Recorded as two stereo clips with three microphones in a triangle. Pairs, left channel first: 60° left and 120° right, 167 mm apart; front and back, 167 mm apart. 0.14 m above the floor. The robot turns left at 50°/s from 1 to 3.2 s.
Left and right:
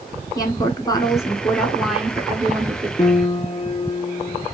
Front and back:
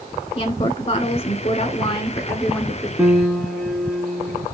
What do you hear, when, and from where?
0.3 s a woman speaking: 10° left, 1.2 m; by 2.9 s 85° right, 1.2 m
3.0 s a piano: 100° left, 0.6 m; by 4.5 s 90° left, 0.6 m